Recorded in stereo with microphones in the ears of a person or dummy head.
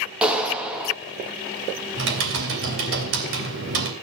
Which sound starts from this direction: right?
Typing on a keyboard, at 2.0 s.